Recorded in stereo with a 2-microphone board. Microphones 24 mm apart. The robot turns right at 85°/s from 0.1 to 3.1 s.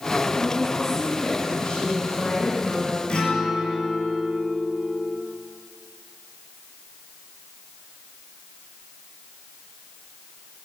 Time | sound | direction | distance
0.3 | a woman speaking | 30° right | 2 m
3.1 | a guitar | 40° left (ahead or behind) | 1.4 m